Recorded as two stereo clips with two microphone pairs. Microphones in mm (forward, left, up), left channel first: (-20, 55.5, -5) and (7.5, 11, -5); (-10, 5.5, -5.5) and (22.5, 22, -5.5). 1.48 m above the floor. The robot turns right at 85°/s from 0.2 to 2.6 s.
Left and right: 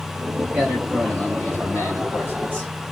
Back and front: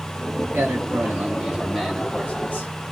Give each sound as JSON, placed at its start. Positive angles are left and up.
{"t": 0.5, "sound": "a man speaking", "azimuth_deg": 0, "distance_m": 0.9}